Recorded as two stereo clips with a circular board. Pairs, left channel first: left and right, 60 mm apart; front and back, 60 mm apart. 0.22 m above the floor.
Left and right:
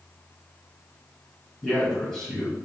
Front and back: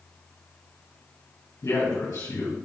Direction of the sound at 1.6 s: 5° left.